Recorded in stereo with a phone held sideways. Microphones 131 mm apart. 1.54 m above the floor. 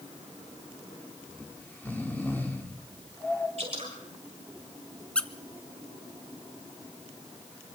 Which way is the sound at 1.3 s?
15° left (ahead or behind).